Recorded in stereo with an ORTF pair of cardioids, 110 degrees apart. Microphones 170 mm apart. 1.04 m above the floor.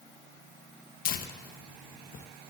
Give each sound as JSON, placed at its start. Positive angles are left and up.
{"t": 1.1, "sound": "tearing paper", "azimuth_deg": 60, "distance_m": 0.8}